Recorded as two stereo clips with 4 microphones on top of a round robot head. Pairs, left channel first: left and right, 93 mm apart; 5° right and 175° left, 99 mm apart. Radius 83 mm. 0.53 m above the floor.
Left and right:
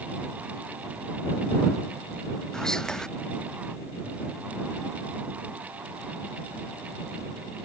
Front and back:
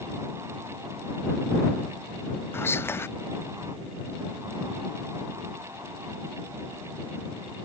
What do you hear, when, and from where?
2.5 s whispering: 15° left